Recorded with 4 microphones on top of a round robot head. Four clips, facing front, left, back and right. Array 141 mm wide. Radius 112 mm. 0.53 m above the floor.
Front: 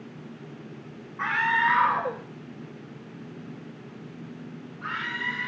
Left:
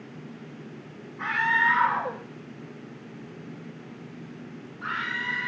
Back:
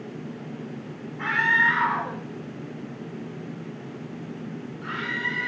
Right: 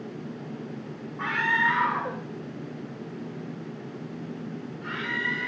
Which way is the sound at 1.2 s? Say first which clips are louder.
Left 1 dB, back 1 dB; 35° right.